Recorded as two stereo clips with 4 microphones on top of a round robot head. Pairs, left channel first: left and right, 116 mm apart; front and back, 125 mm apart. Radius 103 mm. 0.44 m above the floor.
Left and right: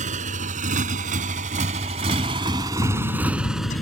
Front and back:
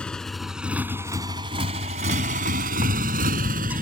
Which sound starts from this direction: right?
A motorcycle, at 0.0 s.